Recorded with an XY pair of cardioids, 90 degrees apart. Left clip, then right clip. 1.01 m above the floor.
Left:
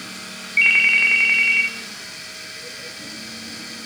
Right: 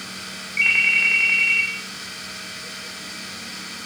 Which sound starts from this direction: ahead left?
A ringtone, at 0.6 s.